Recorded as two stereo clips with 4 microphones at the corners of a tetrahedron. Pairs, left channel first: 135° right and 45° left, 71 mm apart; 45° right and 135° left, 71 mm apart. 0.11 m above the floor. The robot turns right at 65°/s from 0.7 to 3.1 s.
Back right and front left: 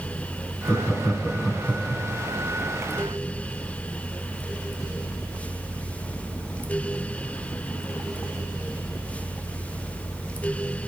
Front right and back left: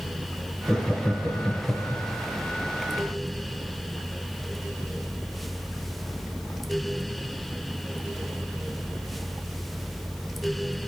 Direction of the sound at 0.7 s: 105° right.